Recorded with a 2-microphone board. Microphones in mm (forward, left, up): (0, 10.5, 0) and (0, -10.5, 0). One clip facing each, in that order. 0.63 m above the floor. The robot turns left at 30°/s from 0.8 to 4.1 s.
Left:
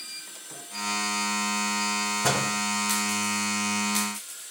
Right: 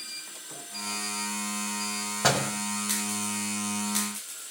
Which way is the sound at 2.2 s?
60° right (ahead or behind).